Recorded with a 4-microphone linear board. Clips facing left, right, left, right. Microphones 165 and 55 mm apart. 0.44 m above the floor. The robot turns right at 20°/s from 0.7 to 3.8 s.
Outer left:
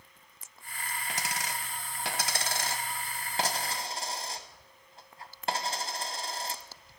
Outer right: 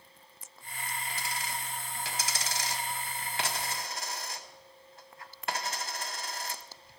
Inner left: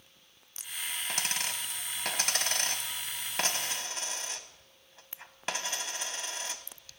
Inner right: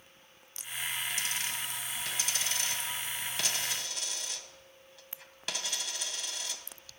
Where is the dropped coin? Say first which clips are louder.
Outer left 4 dB, inner left 1 dB; 85° left, 0.9 m; by 7.0 s 30° left (ahead or behind), 0.9 m.